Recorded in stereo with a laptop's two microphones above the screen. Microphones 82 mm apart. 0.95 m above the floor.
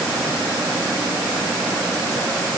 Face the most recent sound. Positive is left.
No sound to turn to.